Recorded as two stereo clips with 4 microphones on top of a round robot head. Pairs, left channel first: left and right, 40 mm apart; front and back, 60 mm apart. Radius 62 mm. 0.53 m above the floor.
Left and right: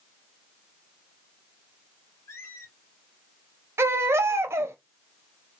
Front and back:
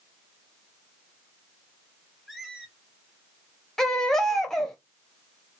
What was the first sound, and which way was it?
A squeak, 95° left.